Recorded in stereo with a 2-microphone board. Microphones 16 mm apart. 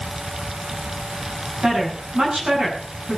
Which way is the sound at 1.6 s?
65° right (ahead or behind).